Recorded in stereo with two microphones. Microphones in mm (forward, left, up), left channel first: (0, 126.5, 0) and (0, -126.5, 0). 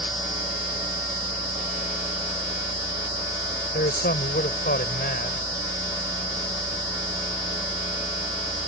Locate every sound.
3.7 s a man speaking: 40° left (ahead or behind)